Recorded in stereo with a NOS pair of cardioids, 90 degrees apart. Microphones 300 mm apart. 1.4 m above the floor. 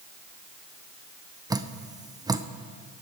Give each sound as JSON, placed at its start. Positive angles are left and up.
{"t": 1.5, "sound": "dripping", "azimuth_deg": -10, "distance_m": 0.7}